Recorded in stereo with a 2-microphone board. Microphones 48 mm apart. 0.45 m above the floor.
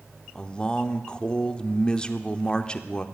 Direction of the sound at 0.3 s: 20° left (ahead or behind).